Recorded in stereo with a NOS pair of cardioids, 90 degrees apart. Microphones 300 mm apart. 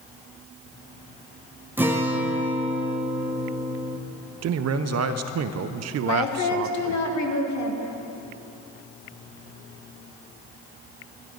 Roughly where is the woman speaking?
Left.